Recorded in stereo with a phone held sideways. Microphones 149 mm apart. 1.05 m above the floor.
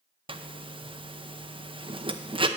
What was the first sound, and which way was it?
A zipper, 40° right (ahead or behind).